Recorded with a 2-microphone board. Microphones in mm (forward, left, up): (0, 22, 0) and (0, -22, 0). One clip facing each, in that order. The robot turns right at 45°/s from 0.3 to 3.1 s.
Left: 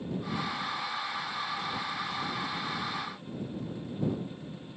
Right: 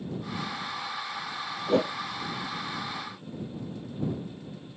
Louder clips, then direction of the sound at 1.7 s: Right 10 dB; 75° right (ahead or behind).